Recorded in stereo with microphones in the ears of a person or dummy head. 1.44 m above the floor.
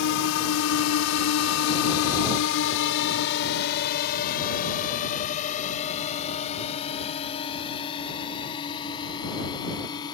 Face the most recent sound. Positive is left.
turn(degrees=20)  # may be behind; listen again after turning